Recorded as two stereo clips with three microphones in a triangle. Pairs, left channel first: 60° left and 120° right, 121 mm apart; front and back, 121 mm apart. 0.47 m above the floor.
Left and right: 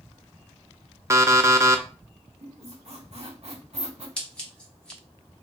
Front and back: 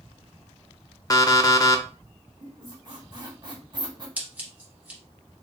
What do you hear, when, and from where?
1.1 s an alarm clock: 55° right, 0.5 m
2.4 s a squeak: 135° right, 1.0 m
4.2 s scissors: 130° left, 1.3 m